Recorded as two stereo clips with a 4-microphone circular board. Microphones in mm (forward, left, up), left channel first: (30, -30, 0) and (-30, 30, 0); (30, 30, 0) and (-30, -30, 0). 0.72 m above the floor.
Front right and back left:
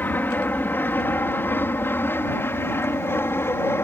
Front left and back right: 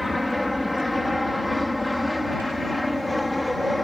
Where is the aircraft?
45° right.